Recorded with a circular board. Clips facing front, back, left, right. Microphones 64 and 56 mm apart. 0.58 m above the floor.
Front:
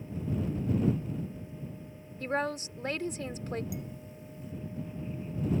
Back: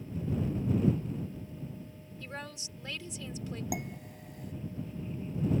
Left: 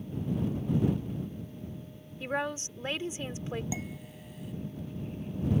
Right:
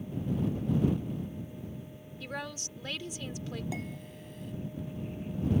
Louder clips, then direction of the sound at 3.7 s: Back 3 dB, left 1 dB; straight behind.